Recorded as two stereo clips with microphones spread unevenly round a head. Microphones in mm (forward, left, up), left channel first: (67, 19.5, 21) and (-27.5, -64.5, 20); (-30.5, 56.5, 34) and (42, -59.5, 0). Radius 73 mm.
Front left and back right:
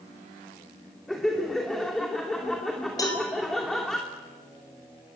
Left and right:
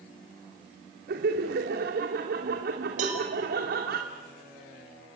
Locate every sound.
1.1 s laughter: 45° right, 2.5 m
3.0 s a cowbell: 20° right, 5.5 m